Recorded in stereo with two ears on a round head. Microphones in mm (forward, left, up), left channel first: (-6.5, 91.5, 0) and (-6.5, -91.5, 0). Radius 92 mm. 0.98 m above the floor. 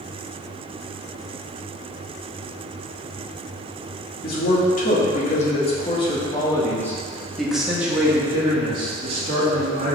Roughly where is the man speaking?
Left.